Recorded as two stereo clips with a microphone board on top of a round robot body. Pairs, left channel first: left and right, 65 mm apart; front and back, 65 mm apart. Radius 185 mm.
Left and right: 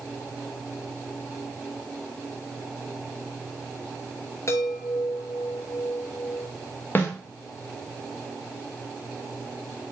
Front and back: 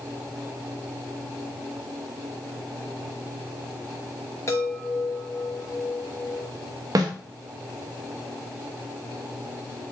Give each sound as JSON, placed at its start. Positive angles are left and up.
{"t": 4.5, "sound": "a chime", "azimuth_deg": 45, "distance_m": 1.3}
{"t": 7.0, "sound": "a snare drum", "azimuth_deg": 150, "distance_m": 1.4}